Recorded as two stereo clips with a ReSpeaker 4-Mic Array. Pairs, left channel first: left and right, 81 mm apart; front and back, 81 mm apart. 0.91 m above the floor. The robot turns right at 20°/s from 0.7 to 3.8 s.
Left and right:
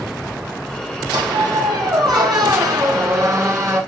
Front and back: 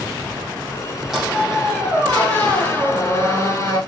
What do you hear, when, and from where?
1.1 s a squeak: 95° right, 4 m; by 3.8 s 40° right, 4 m